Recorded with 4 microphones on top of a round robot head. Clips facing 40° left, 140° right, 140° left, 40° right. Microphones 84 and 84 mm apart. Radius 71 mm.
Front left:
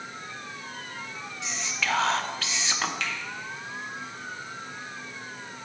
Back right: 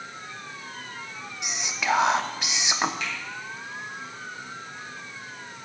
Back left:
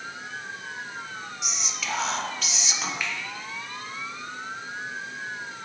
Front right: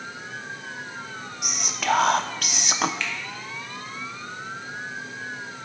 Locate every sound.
1.4 s whispering: 70° right, 0.6 m
3.0 s a finger snap: 60° left, 1.5 m